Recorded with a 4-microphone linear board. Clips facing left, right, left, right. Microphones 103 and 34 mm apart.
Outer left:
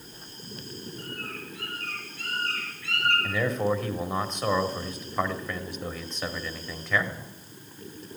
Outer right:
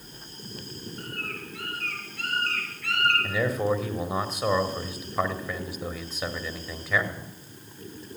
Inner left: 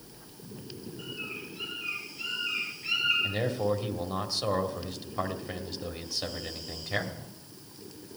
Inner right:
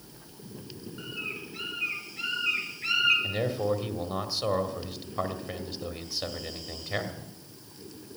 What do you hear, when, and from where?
1.0 s a bird: 55° right (ahead or behind), 6 m
3.2 s a man speaking: 5° right (ahead or behind), 1.6 m